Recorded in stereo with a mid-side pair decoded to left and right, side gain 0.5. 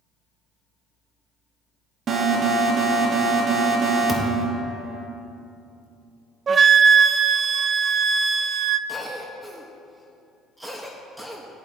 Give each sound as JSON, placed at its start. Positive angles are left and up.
{"t": 2.1, "sound": "an alarm", "azimuth_deg": -50, "distance_m": 1.6}
{"t": 4.1, "sound": "a thud", "azimuth_deg": 15, "distance_m": 1.6}
{"t": 6.5, "sound": "a flute", "azimuth_deg": -40, "distance_m": 0.6}
{"t": 8.9, "sound": "a cough", "azimuth_deg": -5, "distance_m": 1.5}